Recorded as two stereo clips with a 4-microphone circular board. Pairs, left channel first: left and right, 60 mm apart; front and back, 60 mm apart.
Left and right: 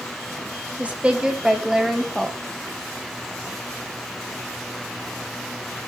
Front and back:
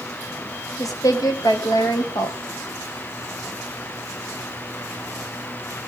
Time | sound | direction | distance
0.8 | a woman speaking | 20° right | 3.5 m